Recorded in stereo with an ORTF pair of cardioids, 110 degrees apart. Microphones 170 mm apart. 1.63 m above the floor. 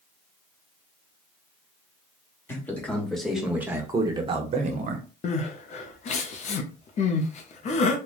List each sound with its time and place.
2.5 s a man speaking: 15° left, 1.3 m; by 5.1 s 60° right, 0.9 m
5.2 s crying: 45° left, 0.6 m